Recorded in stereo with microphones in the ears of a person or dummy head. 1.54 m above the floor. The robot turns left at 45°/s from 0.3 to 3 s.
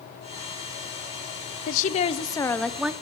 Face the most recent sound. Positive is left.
turn(degrees=-10)